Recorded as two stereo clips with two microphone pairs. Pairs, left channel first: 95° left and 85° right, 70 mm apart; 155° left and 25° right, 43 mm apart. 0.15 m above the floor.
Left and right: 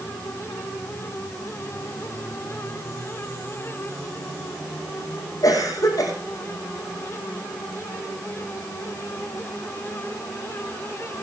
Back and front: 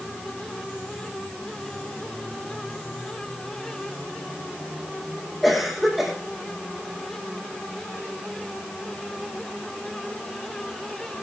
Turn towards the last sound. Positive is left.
turn(degrees=70)